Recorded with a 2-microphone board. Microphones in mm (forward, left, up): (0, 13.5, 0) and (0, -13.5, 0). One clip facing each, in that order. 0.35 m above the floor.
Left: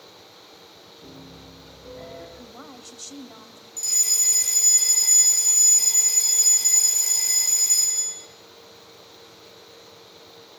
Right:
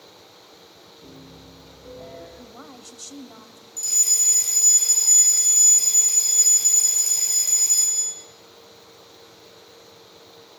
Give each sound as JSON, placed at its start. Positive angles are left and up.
{"t": 1.0, "sound": "a piano", "side_deg": 45, "distance_m": 9.5}
{"t": 2.4, "sound": "a woman speaking", "side_deg": 10, "distance_m": 1.8}
{"t": 3.8, "sound": "a fire alarm", "side_deg": 0, "distance_m": 6.0}